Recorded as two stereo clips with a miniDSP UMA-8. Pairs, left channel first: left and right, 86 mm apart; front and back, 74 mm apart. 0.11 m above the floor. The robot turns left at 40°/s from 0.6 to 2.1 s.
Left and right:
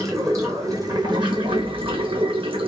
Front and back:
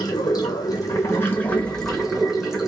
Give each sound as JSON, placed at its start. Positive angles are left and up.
{"t": 0.0, "sound": "running water", "azimuth_deg": -35, "distance_m": 1.1}